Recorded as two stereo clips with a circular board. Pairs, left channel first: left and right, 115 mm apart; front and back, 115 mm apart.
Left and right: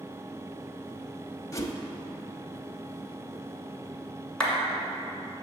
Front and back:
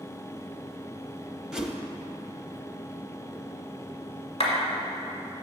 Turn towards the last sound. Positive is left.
turn(degrees=10)